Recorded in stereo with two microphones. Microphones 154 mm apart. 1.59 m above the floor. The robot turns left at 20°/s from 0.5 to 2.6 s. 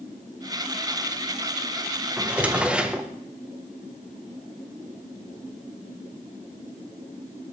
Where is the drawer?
10° right (ahead or behind), 0.6 m; by 3.1 s 5° right (ahead or behind), 0.6 m.